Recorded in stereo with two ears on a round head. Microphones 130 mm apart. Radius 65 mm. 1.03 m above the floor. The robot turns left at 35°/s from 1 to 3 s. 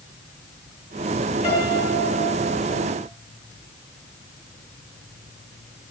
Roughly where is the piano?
Ahead left.